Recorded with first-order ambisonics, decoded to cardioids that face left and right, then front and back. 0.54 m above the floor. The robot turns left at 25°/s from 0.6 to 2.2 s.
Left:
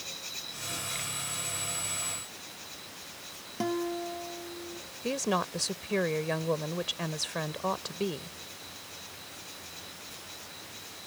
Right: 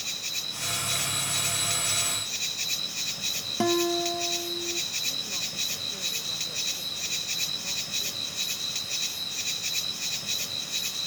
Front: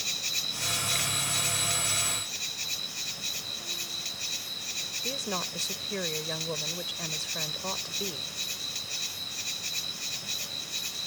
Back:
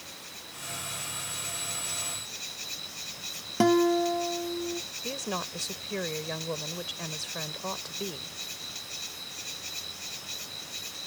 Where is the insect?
30° right; by 11.1 s 70° right.